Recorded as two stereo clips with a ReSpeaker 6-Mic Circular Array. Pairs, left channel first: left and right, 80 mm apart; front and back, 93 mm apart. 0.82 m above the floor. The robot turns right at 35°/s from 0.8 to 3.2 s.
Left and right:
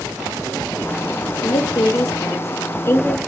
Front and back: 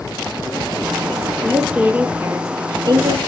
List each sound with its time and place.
1.4 s a woman speaking: 95° left, 0.9 m; by 3.2 s 155° left, 0.9 m